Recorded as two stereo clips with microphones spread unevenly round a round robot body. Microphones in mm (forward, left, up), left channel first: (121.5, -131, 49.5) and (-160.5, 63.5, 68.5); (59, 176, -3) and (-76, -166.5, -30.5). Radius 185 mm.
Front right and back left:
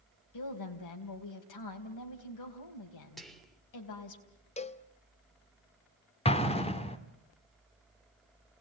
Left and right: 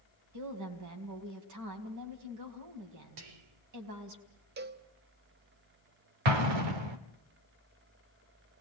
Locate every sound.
0.3 s a woman speaking: 65° right, 3.5 m
3.2 s whispering: 125° right, 2.5 m
4.6 s a cowbell: 85° right, 0.9 m
6.2 s an explosion: 105° right, 1.6 m